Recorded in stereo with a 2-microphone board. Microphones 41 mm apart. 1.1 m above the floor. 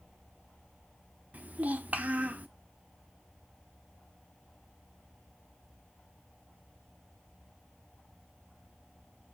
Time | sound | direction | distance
1.3 | a child speaking | 40° right (ahead or behind) | 0.6 m